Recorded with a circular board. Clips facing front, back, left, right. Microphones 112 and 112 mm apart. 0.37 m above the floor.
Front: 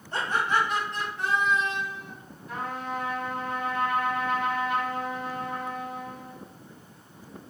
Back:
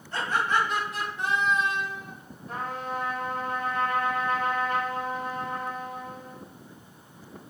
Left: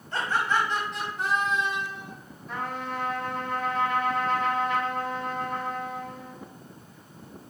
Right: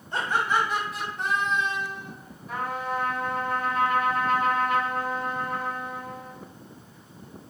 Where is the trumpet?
170° right, 1.6 m.